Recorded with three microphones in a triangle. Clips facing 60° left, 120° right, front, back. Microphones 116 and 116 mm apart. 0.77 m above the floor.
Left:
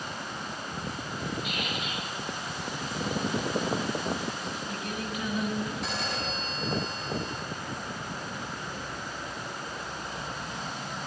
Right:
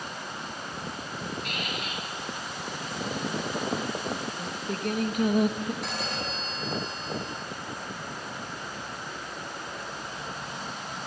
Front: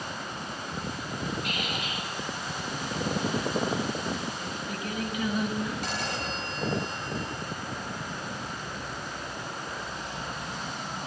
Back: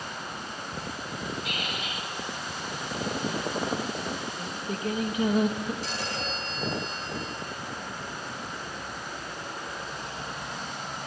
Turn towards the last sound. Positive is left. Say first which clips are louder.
# even, front 1 dB
turn(degrees=-30)